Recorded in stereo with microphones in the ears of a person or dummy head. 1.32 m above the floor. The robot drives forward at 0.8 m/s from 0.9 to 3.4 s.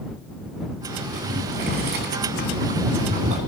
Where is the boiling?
50° right (ahead or behind), 1.9 m; by 3.4 s 40° right (ahead or behind), 2 m.